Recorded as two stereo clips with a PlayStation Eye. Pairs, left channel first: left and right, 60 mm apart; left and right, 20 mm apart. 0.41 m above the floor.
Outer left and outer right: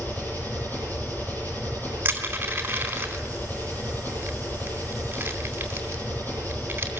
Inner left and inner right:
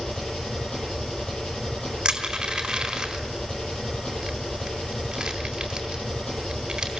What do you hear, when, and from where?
0.0 s an engine running: 35° left (ahead or behind), 10 m
2.0 s crushing: 30° right (ahead or behind), 4 m